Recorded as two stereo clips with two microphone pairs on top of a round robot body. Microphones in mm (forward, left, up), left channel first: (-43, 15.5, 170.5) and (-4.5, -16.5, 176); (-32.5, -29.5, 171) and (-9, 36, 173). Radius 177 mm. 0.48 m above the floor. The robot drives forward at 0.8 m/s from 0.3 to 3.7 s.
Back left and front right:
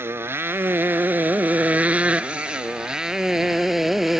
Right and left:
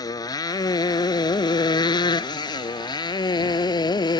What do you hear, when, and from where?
0.0 s a motorcycle: 80° right; by 4.2 s 120° right